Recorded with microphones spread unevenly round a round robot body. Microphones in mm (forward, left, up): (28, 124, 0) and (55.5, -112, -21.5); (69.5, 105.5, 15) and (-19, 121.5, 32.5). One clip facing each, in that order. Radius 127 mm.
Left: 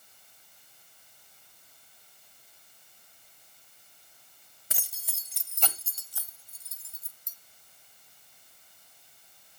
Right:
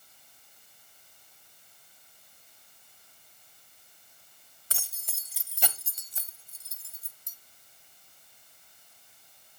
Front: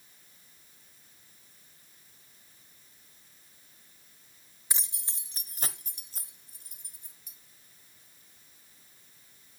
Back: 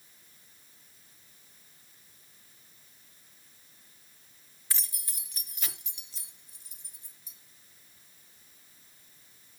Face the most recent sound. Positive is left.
turn(degrees=-35)